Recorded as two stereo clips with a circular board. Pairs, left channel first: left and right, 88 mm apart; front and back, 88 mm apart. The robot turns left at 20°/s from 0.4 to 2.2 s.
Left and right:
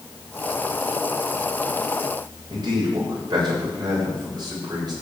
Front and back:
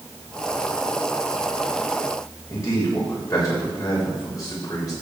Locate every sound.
2.5 s a man speaking: 50° right, 7 m